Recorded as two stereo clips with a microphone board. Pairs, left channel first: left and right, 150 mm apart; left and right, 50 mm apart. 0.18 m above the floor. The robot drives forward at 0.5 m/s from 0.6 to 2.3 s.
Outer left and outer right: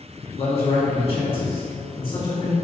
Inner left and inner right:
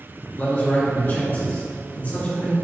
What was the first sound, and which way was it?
A man speaking, 45° left (ahead or behind).